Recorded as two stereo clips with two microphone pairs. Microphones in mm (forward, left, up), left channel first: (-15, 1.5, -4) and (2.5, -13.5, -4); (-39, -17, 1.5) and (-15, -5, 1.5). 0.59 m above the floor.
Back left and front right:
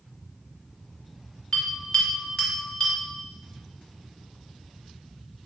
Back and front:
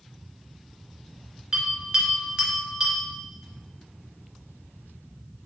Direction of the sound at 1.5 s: 90° left.